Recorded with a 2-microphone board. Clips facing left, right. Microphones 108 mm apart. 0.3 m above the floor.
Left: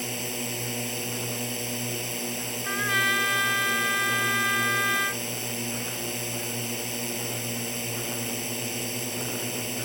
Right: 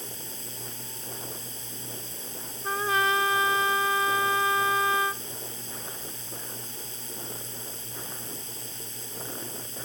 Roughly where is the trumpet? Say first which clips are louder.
Right 4 dB; right.